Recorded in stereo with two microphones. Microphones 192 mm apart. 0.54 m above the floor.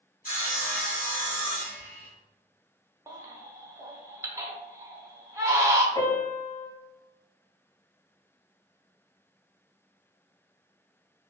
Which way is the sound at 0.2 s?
50° left (ahead or behind).